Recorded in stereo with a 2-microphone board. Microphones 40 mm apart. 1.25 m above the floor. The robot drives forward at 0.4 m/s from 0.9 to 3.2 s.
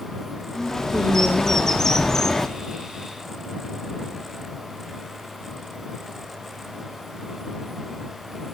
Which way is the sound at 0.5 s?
10° left (ahead or behind).